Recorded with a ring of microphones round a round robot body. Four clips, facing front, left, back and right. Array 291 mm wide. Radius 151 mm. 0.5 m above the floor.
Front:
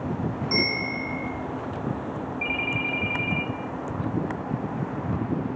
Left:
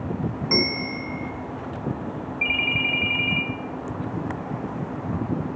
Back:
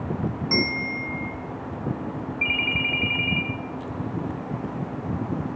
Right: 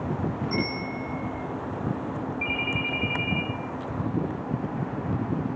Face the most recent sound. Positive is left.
turn(degrees=130)